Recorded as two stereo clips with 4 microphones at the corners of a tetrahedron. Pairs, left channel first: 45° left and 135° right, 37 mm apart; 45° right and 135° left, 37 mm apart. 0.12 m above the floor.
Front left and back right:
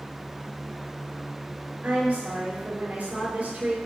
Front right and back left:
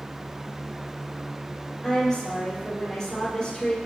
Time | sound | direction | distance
1.8 | a woman speaking | 115° right | 3 m